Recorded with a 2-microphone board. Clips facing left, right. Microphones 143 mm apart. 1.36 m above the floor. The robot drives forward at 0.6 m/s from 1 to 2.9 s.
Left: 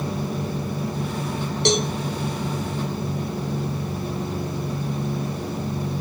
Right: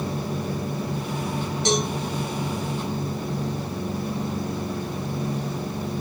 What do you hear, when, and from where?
1.6 s a cowbell: 70° left (ahead or behind), 1.8 m; by 1.9 s 75° left (ahead or behind), 1.7 m